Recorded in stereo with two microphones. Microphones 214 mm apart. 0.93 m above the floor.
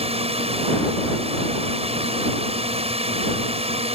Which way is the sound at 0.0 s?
25° right (ahead or behind).